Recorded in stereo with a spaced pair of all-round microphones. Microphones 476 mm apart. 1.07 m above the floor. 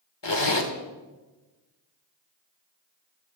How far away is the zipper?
About 1.3 m.